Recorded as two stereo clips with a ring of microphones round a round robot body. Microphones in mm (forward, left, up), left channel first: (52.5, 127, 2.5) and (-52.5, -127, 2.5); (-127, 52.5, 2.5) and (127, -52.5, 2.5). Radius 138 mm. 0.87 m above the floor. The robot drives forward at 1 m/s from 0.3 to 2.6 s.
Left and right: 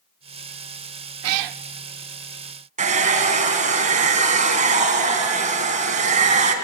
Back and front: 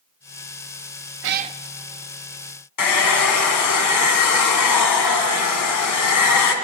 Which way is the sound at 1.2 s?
70° right.